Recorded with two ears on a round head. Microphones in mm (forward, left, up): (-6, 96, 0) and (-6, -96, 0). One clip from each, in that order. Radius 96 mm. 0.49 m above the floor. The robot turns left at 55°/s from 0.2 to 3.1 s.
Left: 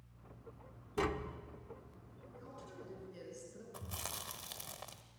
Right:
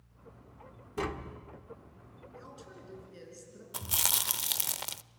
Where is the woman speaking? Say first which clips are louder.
Right 2 dB; 130° right, 6.5 m; by 3.6 s 170° right, 6.5 m.